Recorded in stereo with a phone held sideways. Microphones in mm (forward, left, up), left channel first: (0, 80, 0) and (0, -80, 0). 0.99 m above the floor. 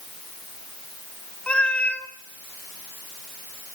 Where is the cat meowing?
10° left (ahead or behind), 1.6 m.